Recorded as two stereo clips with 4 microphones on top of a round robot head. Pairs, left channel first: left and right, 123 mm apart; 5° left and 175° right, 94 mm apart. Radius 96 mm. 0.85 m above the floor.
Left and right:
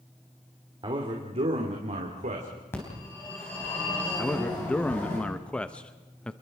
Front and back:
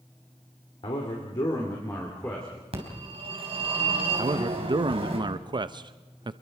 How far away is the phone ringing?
About 4.5 m.